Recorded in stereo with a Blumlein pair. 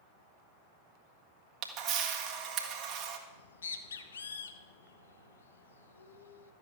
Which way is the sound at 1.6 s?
35° right.